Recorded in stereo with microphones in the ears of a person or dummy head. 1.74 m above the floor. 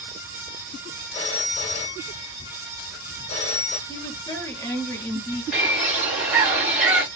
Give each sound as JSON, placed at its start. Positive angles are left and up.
{"t": 1.1, "sound": "a phone ringing", "side_deg": 35, "distance_m": 2.0}
{"t": 3.9, "sound": "a woman speaking", "side_deg": 15, "distance_m": 1.2}
{"t": 5.5, "sound": "a bird", "side_deg": -10, "distance_m": 2.0}